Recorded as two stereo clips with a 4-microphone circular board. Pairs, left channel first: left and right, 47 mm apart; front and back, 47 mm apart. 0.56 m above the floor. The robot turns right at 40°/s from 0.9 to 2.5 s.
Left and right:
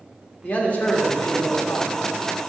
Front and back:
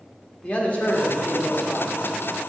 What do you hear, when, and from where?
0.4 s a man speaking: 45° left, 1.6 m; by 1.9 s 85° left, 1.6 m